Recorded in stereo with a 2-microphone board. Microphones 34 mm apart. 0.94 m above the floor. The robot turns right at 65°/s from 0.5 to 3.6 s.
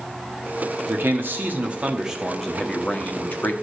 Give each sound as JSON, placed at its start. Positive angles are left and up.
{"t": 0.9, "sound": "a man speaking", "azimuth_deg": -95, "distance_m": 1.5}